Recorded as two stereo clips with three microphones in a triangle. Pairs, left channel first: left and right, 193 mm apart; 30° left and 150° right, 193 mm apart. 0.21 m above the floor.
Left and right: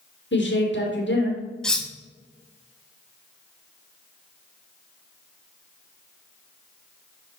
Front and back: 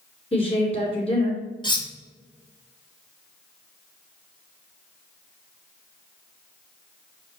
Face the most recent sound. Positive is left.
turn(degrees=10)